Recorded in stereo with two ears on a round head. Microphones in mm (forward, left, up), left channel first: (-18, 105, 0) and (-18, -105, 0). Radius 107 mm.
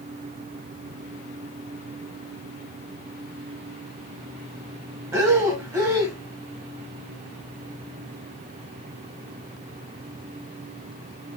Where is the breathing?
15° right (ahead or behind), 1.8 m.